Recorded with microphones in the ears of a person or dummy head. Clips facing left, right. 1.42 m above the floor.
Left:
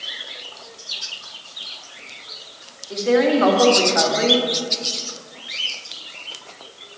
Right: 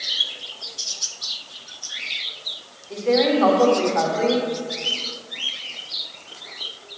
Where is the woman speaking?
5° left (ahead or behind), 2 m.